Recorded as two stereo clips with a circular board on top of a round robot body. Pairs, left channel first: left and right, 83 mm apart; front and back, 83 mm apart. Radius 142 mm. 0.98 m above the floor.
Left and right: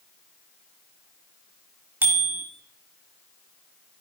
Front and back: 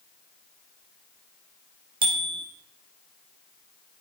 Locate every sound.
2.0 s a bicycle bell: 160° right, 2 m